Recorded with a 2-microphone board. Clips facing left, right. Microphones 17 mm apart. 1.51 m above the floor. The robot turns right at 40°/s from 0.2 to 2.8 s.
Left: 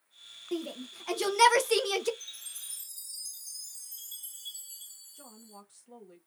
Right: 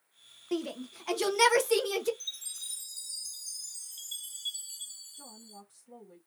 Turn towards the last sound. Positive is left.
turn(degrees=40)  # may be behind; listen again after turning